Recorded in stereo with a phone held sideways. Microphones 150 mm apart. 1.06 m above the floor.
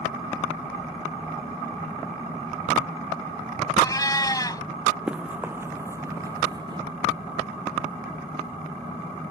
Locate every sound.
3.8 s a cat meowing: 25° left (ahead or behind)
5.1 s running footsteps: 10° right (ahead or behind); by 6.8 s 30° right (ahead or behind)